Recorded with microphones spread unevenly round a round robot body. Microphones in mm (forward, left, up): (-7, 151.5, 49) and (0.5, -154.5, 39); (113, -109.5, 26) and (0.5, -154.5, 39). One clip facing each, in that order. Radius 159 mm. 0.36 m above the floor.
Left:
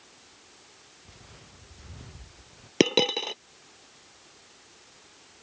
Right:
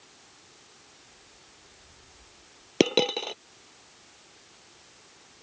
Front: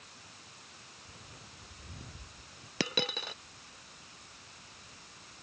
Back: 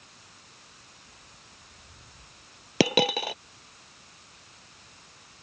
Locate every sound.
1.1 s footsteps: 75° left; by 2.7 s 80° left
2.8 s a dropped coin: 175° left